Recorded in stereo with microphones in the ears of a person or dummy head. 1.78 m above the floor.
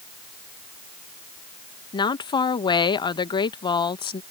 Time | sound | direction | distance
1.9 | a woman speaking | 25° left (ahead or behind) | ?